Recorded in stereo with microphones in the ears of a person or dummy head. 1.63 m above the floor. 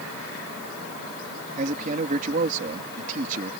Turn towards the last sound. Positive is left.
turn(degrees=-45)  # may be behind; listen again after turning